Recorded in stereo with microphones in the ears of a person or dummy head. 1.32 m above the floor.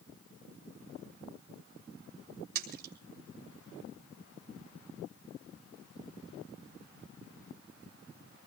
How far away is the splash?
About 4 m.